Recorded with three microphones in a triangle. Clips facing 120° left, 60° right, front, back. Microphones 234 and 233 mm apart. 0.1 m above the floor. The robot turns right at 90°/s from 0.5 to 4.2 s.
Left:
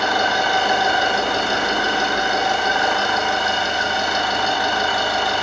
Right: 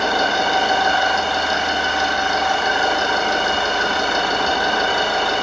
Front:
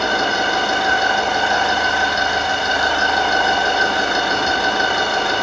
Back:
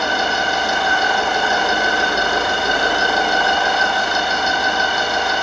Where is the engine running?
5° left, 0.9 m; by 5.4 s 20° right, 0.9 m.